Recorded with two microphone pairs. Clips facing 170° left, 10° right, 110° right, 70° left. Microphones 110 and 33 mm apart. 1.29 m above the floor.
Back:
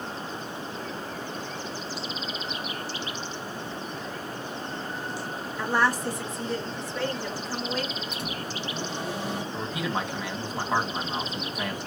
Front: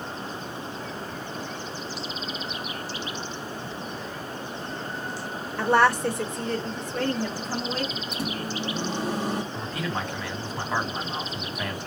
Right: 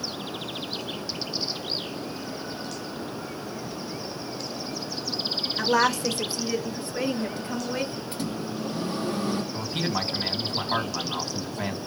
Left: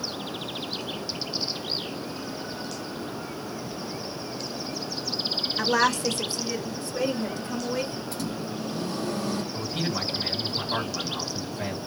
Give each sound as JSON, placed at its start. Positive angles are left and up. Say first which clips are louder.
{"t": 5.6, "sound": "a woman speaking", "louder": "front 5 dB, right 1 dB", "azimuth_deg": -30, "distance_m": 1.5}
{"t": 8.1, "sound": "a microwave", "louder": "front 3 dB, right 1 dB", "azimuth_deg": -60, "distance_m": 2.0}
{"t": 9.5, "sound": "a man speaking", "louder": "back 1 dB, right 1 dB", "azimuth_deg": -115, "distance_m": 2.5}